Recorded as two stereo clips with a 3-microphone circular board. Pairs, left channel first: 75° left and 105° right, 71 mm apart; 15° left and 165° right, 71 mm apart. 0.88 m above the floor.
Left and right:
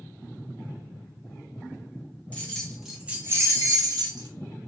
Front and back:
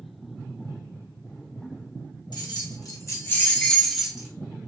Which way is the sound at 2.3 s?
Straight ahead.